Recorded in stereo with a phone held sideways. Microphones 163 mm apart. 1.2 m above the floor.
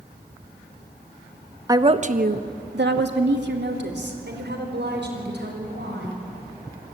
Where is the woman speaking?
20° right (ahead or behind), 1.2 m; by 6.2 s 75° right (ahead or behind), 6.5 m.